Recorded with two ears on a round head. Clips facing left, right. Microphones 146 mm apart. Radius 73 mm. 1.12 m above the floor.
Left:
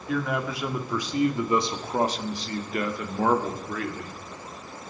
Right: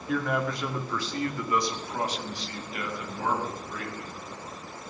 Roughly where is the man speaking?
Centre.